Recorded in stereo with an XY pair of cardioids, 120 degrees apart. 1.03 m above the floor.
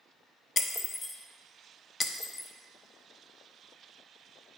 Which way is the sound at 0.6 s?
30° left.